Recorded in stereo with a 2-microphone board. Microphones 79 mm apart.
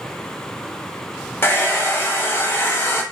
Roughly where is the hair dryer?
Left.